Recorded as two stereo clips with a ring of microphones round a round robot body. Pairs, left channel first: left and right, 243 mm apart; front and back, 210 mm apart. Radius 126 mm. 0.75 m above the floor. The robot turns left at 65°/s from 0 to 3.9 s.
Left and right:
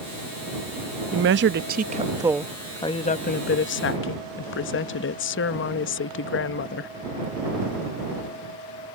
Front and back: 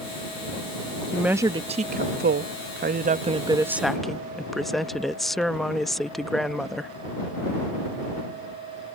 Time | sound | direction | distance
1.1 | a woman speaking | 90° right | ?